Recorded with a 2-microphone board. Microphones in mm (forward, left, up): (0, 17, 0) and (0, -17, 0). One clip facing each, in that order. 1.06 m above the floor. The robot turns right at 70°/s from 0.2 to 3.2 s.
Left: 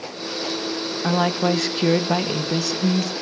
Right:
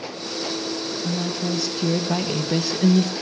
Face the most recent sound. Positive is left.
turn(degrees=-125)